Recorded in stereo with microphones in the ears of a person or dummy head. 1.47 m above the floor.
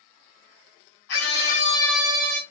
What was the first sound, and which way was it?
A scream, 65° left (ahead or behind).